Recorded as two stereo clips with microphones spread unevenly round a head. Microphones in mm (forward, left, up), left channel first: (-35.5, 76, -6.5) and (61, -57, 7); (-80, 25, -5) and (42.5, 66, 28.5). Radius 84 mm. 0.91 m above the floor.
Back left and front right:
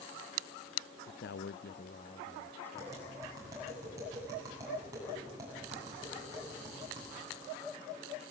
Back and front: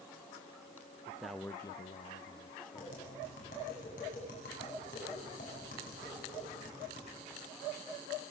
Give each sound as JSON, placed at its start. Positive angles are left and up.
{"t": 1.1, "sound": "a man speaking", "azimuth_deg": 105, "distance_m": 0.6}
{"t": 2.8, "sound": "tapping", "azimuth_deg": -125, "distance_m": 10.0}